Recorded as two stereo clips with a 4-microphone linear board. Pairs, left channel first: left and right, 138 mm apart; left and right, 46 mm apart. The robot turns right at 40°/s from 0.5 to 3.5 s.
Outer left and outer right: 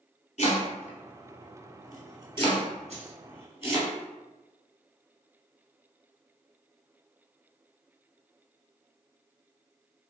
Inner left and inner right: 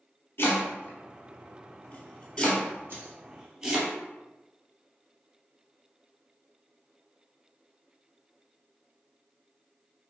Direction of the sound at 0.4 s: 55° left (ahead or behind).